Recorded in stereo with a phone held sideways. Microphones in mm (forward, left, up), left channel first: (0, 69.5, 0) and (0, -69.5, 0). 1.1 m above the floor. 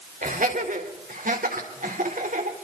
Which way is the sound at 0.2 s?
80° right.